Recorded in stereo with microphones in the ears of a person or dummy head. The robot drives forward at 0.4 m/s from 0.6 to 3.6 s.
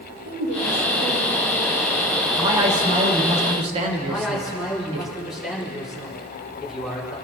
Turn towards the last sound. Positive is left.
turn(degrees=-5)  # may be behind; listen again after turning